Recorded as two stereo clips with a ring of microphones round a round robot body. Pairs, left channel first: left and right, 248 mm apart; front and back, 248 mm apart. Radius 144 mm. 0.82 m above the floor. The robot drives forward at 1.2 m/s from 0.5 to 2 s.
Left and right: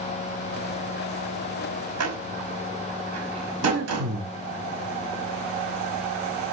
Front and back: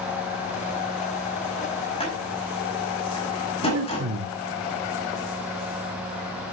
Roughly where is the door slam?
Right.